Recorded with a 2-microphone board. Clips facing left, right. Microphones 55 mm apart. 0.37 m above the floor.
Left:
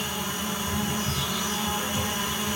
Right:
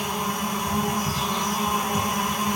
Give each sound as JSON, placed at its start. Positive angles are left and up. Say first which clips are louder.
{"t": 0.0, "sound": "an insect", "louder": "right 4 dB", "side_deg": -50, "distance_m": 1.8}